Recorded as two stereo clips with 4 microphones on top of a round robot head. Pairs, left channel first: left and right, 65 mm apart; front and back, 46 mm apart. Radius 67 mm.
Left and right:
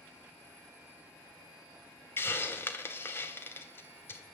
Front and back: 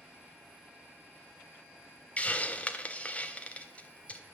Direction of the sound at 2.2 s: 45° left.